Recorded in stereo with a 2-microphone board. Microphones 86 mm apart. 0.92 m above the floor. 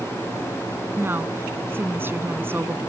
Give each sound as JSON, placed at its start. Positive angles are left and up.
{"t": 1.0, "sound": "a woman speaking", "side_deg": -25}